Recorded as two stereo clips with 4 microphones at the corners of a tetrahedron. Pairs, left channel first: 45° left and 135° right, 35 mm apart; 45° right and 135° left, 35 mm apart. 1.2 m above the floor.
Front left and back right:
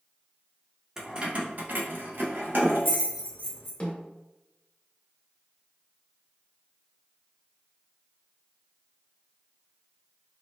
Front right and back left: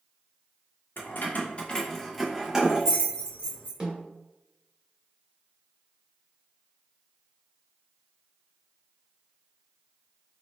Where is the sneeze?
No sneeze in this recording.